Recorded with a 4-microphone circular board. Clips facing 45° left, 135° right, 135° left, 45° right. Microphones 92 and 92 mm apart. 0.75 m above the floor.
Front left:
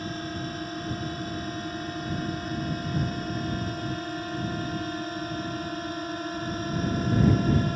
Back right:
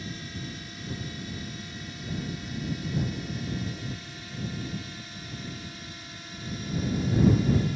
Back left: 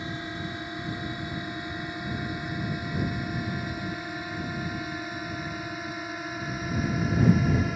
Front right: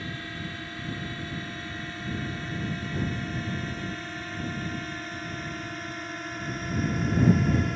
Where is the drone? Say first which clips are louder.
Front left 6 dB, back left 2 dB; 70° left; by 7.8 s 50° left.